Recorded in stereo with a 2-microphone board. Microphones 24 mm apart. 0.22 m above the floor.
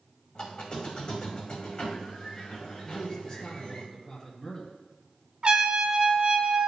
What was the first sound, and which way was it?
A squeak, 30° left (ahead or behind).